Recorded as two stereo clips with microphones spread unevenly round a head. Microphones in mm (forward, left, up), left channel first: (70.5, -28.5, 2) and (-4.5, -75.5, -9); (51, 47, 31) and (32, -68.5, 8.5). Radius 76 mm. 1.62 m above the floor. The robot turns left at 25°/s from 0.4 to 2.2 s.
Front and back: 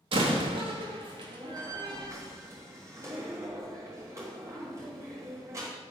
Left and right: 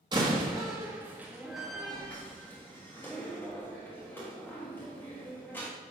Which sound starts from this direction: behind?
A door slam, at 0.1 s.